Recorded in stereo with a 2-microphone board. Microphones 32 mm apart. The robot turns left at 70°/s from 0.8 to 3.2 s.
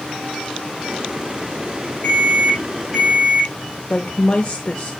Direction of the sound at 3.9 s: 25° left (ahead or behind).